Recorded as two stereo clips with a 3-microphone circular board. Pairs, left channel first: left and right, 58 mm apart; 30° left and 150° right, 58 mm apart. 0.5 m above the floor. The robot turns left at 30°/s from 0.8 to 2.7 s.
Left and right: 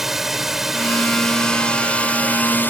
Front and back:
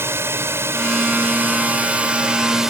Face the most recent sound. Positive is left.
turn(degrees=130)